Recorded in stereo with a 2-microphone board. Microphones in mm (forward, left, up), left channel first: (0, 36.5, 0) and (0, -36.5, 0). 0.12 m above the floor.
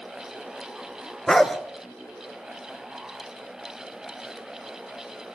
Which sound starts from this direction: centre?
A dog barking, at 1.3 s.